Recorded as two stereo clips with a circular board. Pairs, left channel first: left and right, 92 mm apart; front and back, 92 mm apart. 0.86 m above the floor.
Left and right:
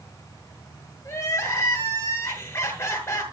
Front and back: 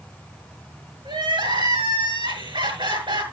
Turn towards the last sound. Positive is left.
turn(degrees=150)